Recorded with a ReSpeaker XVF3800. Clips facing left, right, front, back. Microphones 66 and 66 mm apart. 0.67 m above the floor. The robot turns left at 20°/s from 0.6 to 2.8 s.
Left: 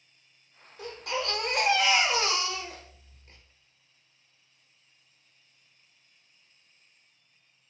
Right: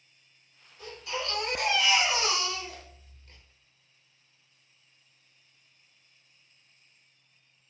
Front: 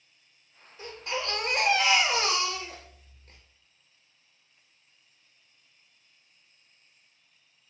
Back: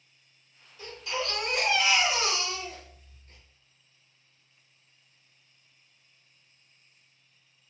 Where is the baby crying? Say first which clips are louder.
Left 3 dB, even; 60° left, 0.9 m; by 3.4 s 20° left, 0.9 m.